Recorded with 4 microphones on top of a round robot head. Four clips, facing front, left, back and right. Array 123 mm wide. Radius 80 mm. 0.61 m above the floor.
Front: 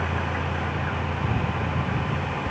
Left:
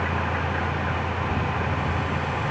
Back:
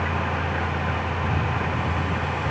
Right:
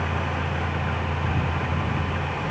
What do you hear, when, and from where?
Only background noise.